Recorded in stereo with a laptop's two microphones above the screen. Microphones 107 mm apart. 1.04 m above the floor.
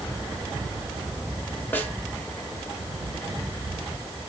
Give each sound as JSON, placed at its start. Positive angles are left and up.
{"t": 1.7, "sound": "a snare drum", "side_deg": 20, "distance_m": 1.4}